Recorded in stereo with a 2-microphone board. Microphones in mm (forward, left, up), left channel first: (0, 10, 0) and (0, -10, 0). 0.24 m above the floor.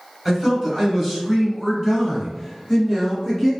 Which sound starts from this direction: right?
A man speaking, at 0.2 s.